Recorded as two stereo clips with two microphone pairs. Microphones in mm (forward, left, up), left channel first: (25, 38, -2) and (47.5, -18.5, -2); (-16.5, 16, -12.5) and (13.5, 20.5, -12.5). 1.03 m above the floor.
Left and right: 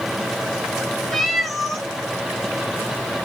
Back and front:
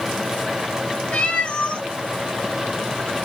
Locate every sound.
1.1 s a cat meowing: 160° right, 0.9 m